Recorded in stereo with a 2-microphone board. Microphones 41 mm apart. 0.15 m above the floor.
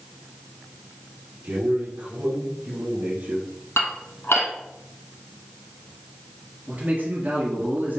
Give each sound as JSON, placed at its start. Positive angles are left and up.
{"t": 1.4, "sound": "a man speaking", "side_deg": -50, "distance_m": 3.5}
{"t": 3.8, "sound": "dishes clattering", "side_deg": 75, "distance_m": 3.0}
{"t": 6.7, "sound": "a man speaking", "side_deg": -40, "distance_m": 2.0}